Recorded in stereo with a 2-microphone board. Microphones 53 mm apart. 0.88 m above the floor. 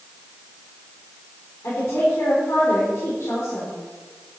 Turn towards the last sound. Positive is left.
turn(degrees=60)  # may be behind; listen again after turning